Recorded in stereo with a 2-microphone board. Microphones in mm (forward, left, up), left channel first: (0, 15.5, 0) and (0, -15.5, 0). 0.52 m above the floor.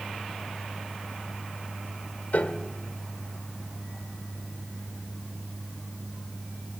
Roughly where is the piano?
Left.